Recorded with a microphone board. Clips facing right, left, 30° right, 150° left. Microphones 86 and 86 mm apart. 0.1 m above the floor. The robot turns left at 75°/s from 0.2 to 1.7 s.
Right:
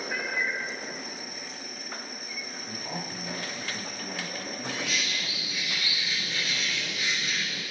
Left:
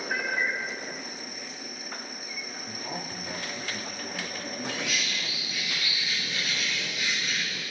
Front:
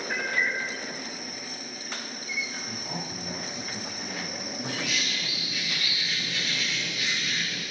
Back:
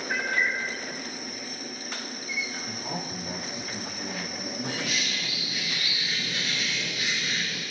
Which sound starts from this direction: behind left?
A man speaking, at 2.6 s.